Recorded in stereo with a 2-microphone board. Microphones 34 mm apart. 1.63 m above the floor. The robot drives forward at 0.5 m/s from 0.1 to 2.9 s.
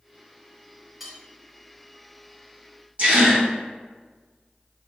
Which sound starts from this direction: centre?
Cutlery clinking, at 1.0 s.